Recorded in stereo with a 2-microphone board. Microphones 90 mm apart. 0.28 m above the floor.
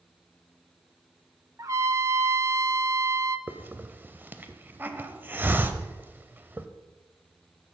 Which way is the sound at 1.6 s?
35° right (ahead or behind).